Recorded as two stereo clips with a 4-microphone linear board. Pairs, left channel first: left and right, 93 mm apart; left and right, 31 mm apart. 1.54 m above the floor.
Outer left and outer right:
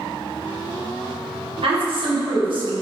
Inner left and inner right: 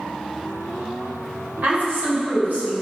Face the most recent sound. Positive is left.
turn(degrees=-60)  # may be behind; listen again after turning